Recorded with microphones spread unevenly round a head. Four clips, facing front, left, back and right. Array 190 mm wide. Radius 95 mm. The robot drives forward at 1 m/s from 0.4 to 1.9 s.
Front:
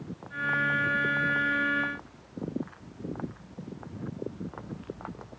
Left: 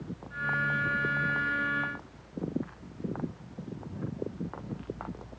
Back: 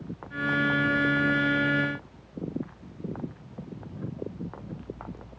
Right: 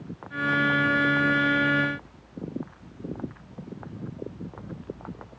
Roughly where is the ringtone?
No ringtone in this recording.